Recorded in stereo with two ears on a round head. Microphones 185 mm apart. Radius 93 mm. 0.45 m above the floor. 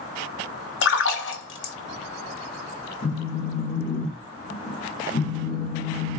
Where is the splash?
60° left (ahead or behind), 0.8 m.